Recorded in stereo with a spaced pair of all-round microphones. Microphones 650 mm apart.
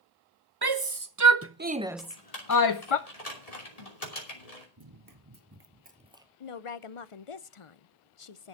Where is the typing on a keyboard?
75° left (ahead or behind), 3 m.